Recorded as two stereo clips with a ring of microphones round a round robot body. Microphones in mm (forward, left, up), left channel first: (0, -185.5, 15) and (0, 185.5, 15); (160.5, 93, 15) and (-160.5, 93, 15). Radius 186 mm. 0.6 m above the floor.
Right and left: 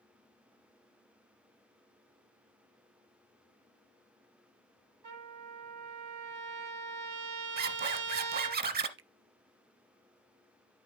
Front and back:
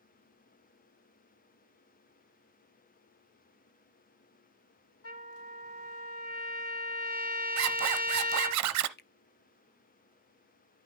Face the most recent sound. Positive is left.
turn(degrees=45)